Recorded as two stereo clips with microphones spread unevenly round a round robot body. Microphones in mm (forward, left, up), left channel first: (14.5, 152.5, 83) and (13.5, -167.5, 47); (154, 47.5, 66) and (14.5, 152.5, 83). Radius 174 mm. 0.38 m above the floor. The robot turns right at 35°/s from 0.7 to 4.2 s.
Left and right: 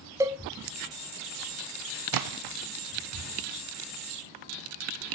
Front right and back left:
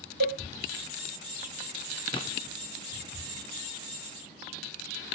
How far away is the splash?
About 0.6 m.